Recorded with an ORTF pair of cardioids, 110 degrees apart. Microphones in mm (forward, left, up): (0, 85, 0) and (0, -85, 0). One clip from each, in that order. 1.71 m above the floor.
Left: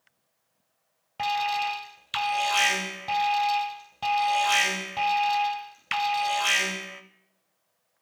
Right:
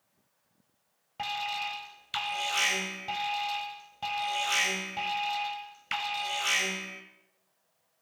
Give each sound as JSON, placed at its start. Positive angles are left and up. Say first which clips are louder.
{"t": 1.2, "sound": "an alarm", "louder": "left 7 dB", "azimuth_deg": 25, "distance_m": 0.7}